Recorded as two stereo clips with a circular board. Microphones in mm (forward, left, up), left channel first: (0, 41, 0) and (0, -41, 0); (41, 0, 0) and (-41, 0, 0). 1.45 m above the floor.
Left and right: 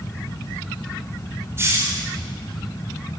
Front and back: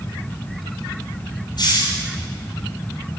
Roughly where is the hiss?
Ahead right.